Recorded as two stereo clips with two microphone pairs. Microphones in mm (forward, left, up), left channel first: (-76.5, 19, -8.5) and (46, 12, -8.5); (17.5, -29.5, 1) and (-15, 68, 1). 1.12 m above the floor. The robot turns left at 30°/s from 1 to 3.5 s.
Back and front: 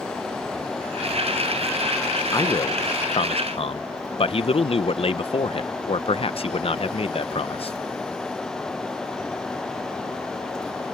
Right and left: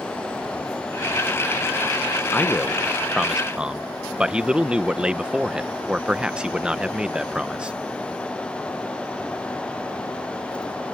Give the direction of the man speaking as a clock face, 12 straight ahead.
5 o'clock.